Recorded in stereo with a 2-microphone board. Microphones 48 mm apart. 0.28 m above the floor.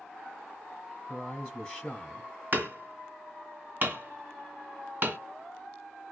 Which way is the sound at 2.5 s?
45° right (ahead or behind).